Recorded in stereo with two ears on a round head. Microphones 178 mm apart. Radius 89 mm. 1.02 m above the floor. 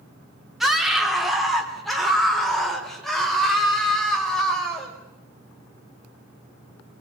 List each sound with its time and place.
0.6 s a scream: centre (ahead or behind), 2.5 m